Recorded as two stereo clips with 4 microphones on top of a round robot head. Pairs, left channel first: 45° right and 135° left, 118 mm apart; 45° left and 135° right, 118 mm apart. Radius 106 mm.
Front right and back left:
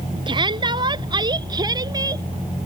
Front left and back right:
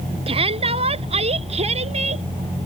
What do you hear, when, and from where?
0.3 s a shout: 175° right; by 2.2 s 165° right